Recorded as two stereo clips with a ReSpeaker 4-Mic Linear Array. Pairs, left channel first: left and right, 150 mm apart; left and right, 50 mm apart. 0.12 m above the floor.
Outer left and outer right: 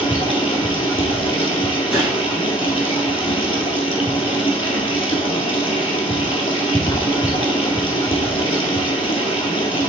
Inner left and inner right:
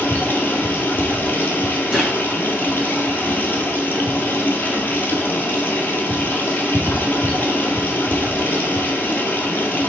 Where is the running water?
40° left (ahead or behind), 1.7 m.